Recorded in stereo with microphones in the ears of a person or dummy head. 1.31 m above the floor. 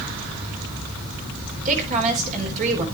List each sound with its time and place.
1.6 s a woman speaking: 40° right (ahead or behind), 4 m